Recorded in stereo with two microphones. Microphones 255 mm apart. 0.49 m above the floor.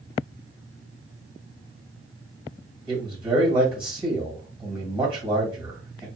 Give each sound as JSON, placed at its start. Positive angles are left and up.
{"t": 2.9, "sound": "a man speaking", "side_deg": -20, "distance_m": 2.0}